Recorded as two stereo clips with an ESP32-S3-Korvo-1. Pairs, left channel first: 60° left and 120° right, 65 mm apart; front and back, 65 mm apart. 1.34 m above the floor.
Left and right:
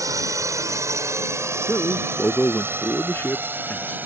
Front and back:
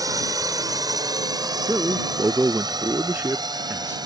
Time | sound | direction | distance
0.0 | a drone | 155° right | ?
1.7 | a man speaking | 120° left | ?